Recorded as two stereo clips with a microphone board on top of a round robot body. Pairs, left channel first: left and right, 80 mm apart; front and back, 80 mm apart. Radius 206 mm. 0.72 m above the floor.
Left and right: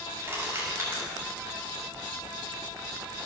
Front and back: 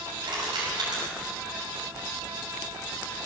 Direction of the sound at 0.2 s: 150° right.